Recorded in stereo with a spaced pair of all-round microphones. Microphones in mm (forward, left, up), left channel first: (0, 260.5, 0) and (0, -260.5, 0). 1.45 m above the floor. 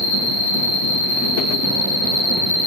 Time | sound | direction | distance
0.0 | an insect | 45° right (ahead or behind) | 1.4 m